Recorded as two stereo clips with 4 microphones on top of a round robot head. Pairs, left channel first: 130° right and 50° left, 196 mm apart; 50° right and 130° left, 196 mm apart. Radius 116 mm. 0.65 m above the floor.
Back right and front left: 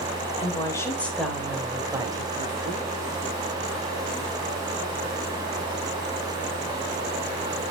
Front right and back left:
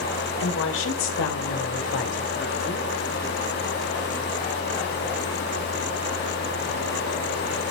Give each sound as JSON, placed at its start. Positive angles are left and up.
{"t": 0.4, "sound": "a woman speaking", "azimuth_deg": -65, "distance_m": 3.0}